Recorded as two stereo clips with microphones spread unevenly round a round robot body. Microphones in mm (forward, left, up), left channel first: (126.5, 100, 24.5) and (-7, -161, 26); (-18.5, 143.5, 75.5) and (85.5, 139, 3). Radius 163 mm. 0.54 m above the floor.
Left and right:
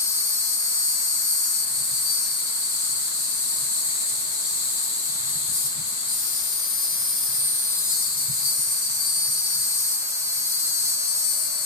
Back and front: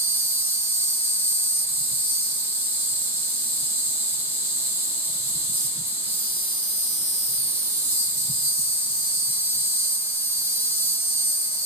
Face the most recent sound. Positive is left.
turn(degrees=45)